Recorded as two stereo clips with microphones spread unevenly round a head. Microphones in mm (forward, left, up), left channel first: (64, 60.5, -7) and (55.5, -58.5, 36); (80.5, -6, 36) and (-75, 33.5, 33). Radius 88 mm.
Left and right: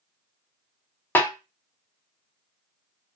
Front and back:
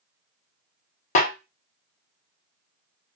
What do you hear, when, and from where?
1.1 s a snare drum: 5° right, 0.5 m